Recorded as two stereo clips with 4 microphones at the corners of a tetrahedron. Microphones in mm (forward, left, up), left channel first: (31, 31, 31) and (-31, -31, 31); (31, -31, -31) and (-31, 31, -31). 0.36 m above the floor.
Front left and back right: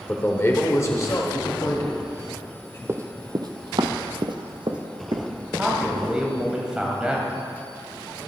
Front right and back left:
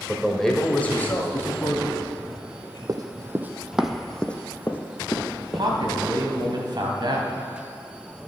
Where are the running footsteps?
170° left, 0.7 m; by 6.5 s 95° right, 2 m.